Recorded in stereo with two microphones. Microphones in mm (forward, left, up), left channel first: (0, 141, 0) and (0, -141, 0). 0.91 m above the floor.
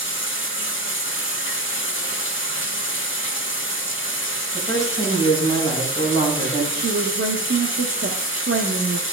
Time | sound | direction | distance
0.0 | running water | 45° left (ahead or behind) | 1.1 m
4.5 | a woman speaking | 10° left (ahead or behind) | 5.5 m
6.7 | a woman speaking | 45° right (ahead or behind) | 0.9 m